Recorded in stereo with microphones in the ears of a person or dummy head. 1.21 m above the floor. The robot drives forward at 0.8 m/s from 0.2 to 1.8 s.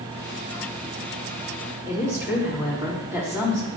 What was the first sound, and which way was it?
A woman speaking, 15° right (ahead or behind).